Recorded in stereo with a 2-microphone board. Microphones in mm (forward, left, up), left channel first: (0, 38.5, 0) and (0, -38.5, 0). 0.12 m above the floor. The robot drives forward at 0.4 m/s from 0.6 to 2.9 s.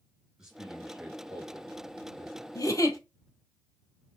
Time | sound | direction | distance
0.4 | a man speaking | 5° right (ahead or behind) | 1.5 m
2.5 | a giggle | 50° left (ahead or behind) | 0.8 m